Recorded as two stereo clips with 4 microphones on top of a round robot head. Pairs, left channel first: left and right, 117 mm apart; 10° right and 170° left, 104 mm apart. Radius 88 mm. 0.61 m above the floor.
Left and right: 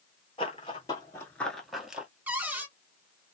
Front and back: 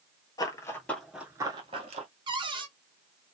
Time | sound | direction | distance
0.4 | running footsteps | 35° left | 0.8 m
2.3 | a cupboard door | 165° right | 1.2 m